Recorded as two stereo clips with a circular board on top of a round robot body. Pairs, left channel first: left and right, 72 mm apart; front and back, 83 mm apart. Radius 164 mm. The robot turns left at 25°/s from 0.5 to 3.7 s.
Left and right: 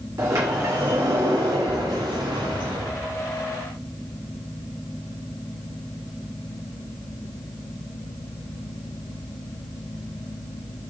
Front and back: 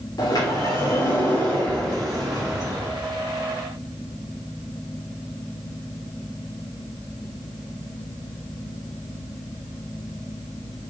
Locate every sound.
0.2 s a sliding door: 45° right, 0.7 m; by 3.0 s 105° right, 0.7 m